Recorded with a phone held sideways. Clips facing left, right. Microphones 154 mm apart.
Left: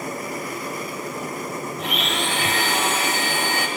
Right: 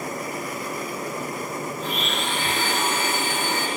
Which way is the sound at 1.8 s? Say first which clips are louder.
Left 4 dB; 70° left (ahead or behind).